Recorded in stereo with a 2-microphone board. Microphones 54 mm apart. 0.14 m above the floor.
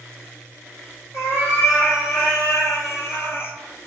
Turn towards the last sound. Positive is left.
turn(degrees=40)  # may be behind; listen again after turning